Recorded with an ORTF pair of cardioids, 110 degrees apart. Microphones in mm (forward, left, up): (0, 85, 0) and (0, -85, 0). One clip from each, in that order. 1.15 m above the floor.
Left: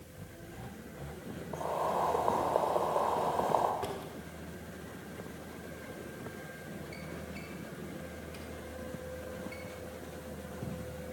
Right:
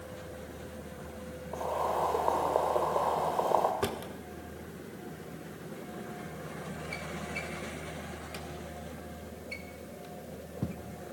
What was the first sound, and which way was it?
Boiling, 10° right.